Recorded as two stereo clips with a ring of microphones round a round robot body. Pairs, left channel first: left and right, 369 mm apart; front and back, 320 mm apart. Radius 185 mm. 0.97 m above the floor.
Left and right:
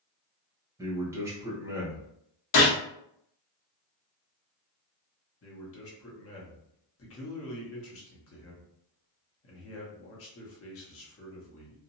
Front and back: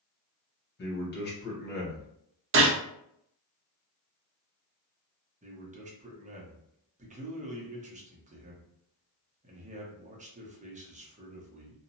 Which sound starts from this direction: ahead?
A man speaking, at 0.8 s.